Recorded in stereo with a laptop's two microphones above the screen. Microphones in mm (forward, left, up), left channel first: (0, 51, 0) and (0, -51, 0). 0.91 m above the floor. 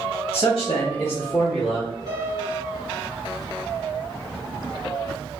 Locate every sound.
0.3 s a man speaking: 55° left (ahead or behind), 0.7 m; by 2.0 s 5° right (ahead or behind), 0.9 m
2.1 s a piano: 35° right (ahead or behind), 1.5 m